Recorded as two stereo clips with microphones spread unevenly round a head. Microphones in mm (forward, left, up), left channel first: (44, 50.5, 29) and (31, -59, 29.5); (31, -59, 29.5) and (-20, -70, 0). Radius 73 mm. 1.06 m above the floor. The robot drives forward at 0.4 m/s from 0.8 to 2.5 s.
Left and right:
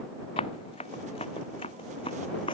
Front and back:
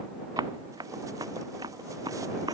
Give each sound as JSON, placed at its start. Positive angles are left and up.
{"t": 0.4, "sound": "running footsteps", "azimuth_deg": 140}